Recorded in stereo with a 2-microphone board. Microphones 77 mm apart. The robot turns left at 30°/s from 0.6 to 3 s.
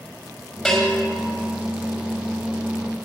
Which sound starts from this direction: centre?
A bell, at 0.7 s.